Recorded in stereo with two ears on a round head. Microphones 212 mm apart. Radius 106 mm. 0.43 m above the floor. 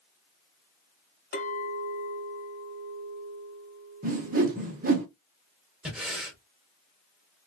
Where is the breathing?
5° right (ahead or behind), 1.1 m.